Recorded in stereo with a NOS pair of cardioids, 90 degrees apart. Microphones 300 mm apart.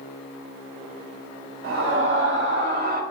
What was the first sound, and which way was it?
A scream, 50° right.